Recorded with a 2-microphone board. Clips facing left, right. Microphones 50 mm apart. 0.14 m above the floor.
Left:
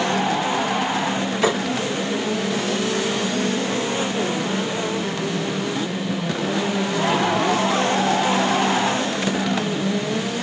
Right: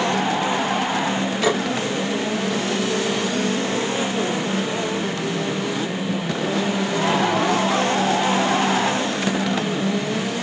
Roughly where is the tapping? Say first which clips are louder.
Even; left.